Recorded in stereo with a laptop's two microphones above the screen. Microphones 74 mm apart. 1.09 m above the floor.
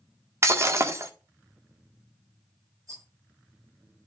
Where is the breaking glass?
35° right (ahead or behind), 1.3 m.